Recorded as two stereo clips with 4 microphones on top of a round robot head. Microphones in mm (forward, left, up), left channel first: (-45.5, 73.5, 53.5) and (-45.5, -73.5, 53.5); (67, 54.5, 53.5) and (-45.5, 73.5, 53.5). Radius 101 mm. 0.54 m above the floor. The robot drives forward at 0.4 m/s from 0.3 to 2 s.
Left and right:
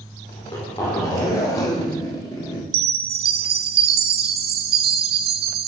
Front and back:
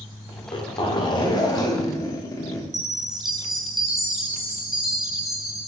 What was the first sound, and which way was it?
A zipper, 20° left.